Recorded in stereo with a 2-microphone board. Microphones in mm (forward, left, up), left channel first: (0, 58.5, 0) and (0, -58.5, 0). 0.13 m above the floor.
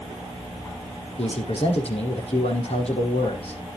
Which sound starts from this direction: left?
A man speaking, at 1.2 s.